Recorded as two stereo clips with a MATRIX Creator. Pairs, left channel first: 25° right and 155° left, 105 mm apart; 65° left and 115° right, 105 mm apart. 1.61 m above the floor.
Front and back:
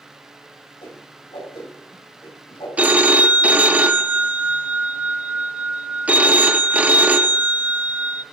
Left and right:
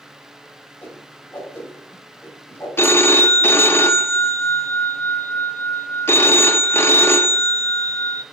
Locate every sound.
0.8 s a whoosh: straight ahead, 3.5 m
2.8 s a phone ringing: 100° left, 0.5 m